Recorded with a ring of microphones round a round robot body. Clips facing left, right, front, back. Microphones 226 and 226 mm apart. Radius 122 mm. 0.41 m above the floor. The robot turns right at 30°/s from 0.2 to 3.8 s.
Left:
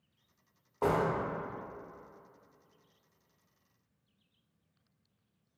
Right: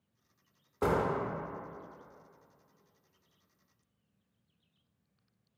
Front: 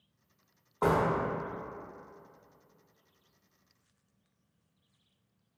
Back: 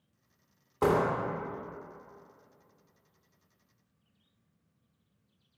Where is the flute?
No flute in this recording.